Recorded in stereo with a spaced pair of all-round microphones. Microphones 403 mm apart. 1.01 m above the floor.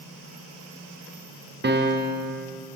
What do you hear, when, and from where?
1.6 s a piano: 25° right (ahead or behind), 0.7 m